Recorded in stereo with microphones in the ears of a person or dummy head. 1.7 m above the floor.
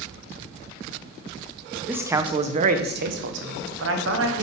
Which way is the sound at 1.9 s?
5° right (ahead or behind).